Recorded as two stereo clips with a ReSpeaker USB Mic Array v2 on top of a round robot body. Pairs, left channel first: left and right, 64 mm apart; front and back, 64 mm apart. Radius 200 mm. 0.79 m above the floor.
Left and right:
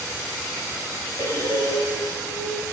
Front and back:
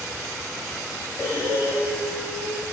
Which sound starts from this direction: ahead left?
Breathing, at 1.2 s.